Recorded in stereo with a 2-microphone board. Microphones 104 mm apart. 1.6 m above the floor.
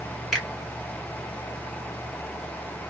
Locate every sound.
0.3 s a finger snap: centre (ahead or behind), 1.3 m